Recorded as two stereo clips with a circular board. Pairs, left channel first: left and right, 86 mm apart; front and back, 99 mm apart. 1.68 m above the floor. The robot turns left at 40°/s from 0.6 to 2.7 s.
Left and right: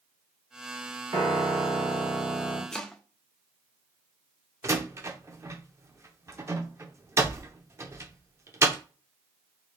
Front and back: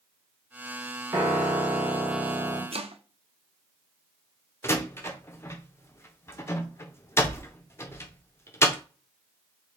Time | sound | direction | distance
1.1 | a piano | 125° right | 1.4 m
2.7 | chopping | 175° left | 0.5 m
4.6 | a door slam | 50° right | 0.6 m